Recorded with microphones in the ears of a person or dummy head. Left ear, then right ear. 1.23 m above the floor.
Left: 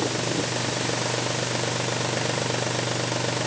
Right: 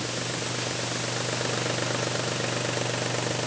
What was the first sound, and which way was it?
Only background noise.